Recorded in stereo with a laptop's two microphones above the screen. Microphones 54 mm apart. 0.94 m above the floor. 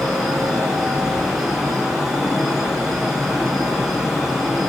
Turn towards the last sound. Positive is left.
turn(degrees=0)  # may be behind; listen again after turning